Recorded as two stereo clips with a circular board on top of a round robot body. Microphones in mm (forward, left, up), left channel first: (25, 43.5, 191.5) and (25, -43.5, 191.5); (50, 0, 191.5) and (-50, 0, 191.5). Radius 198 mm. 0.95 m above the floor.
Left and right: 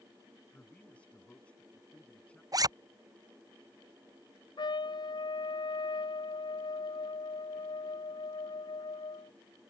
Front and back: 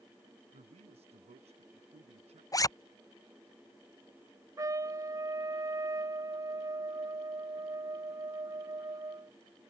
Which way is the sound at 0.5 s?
165° left.